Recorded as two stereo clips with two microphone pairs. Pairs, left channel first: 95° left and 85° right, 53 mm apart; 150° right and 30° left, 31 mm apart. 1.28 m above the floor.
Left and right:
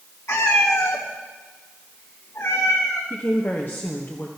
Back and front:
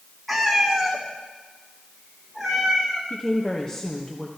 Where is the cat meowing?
115° left, 1.5 m; by 3.0 s 110° left, 3 m.